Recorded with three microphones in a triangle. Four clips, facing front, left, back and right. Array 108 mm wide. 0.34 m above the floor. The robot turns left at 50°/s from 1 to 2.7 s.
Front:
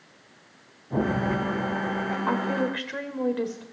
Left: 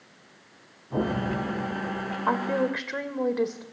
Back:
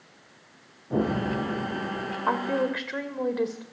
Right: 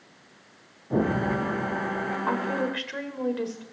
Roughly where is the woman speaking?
Behind left.